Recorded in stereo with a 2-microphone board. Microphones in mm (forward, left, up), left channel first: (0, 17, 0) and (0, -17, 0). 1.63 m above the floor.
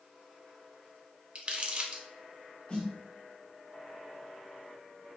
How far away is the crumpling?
About 0.7 m.